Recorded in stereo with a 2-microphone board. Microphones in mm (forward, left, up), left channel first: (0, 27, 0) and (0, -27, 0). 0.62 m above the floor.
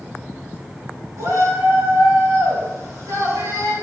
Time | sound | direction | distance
1.2 | a shout | 80° right | 6 m